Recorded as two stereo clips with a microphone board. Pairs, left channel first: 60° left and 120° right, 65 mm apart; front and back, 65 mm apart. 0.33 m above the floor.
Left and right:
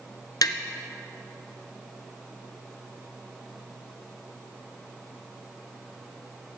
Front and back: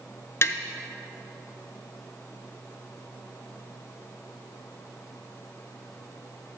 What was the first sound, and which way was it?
Tapping, 50° left.